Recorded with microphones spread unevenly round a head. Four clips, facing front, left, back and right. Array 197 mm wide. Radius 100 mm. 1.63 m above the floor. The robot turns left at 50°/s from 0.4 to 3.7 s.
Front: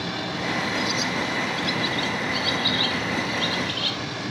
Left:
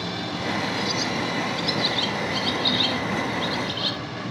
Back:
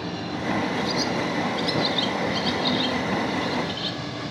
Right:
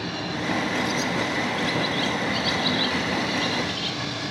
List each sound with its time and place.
0.8 s a bird: 145° right; by 4.0 s 70° left